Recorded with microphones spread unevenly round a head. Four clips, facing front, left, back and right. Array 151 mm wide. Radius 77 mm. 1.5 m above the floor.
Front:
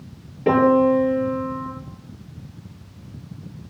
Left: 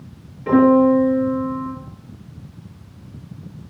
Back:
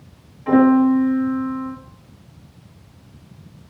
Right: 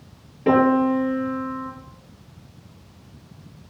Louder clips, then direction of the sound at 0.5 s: Left 5 dB, back 2 dB; 40° right.